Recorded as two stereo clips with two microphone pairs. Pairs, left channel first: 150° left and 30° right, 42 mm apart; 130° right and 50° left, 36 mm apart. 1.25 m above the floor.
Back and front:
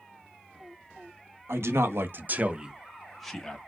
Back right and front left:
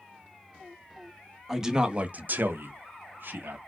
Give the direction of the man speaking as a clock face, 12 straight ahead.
1 o'clock.